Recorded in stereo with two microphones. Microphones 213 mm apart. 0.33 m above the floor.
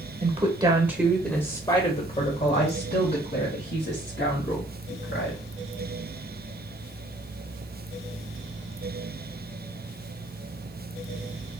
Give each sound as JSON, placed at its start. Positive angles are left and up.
{"t": 0.2, "sound": "a woman speaking", "side_deg": -30, "distance_m": 1.1}